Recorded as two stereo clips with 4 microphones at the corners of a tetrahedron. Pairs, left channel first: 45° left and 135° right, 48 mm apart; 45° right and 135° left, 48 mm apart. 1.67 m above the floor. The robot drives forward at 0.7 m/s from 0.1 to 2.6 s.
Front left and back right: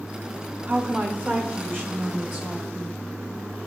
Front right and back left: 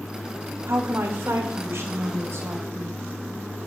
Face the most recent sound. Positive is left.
turn(degrees=175)